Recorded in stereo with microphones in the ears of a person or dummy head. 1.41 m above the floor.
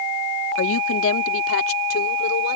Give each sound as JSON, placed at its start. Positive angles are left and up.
{"t": 0.6, "sound": "a woman speaking", "side_deg": 75}